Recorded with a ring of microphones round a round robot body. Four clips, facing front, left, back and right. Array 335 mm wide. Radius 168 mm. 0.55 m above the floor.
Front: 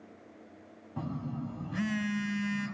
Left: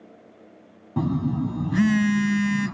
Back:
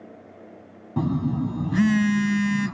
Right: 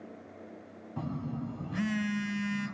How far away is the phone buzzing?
About 0.7 m.